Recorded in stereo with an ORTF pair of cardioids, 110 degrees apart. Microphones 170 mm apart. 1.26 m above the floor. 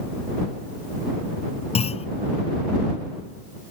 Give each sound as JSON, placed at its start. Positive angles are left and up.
{"t": 1.8, "sound": "a clunk", "azimuth_deg": 35}